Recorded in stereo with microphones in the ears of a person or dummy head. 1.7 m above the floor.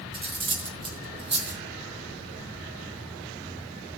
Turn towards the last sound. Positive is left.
turn(degrees=-30)  # may be behind; listen again after turning